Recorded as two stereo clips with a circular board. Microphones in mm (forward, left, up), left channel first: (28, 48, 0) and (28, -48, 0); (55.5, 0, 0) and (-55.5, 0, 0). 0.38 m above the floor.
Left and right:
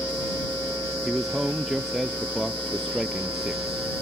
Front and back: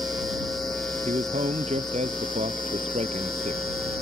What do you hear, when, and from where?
1.1 s a man speaking: straight behind